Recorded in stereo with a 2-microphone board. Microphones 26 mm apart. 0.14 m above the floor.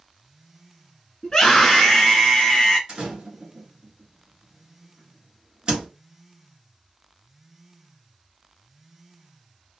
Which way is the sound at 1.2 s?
30° left (ahead or behind).